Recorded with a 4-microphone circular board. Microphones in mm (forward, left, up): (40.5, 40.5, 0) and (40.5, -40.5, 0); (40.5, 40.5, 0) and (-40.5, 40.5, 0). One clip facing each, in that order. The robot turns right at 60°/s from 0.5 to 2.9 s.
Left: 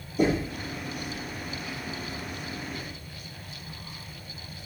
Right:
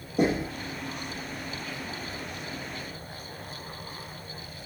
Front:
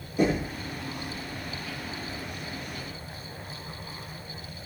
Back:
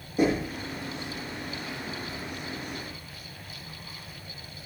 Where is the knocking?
110° right, 4.5 m.